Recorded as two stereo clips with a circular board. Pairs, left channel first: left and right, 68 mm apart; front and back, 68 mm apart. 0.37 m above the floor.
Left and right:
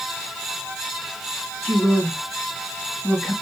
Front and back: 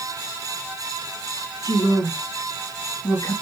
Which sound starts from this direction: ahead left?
A woman speaking, at 1.6 s.